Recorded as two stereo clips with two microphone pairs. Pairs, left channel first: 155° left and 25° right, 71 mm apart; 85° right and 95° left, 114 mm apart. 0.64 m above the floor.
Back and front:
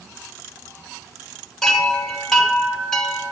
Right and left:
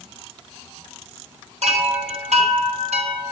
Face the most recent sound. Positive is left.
turn(degrees=75)